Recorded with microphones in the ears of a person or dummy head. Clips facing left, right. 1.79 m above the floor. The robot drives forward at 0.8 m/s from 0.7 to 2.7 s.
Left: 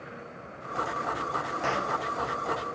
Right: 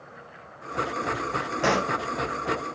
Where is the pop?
70° right (ahead or behind), 0.6 m; by 2.0 s 50° right (ahead or behind), 0.7 m.